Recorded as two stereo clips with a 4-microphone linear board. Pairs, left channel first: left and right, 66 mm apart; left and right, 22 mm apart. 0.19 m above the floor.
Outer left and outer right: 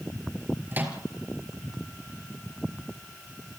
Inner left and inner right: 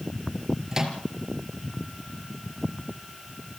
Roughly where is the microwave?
Right.